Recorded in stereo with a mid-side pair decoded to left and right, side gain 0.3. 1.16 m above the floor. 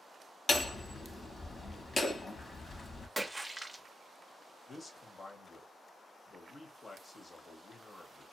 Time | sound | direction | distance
0.5 | hammering | 45° left | 1.4 m
3.2 | a splash | 20° right | 0.7 m
4.7 | a man speaking | 50° left | 1.3 m